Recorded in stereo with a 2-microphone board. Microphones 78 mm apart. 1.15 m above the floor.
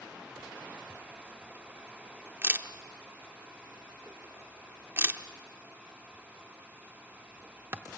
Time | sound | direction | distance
0.9 | a camera shutter | 30° right (ahead or behind) | 0.8 m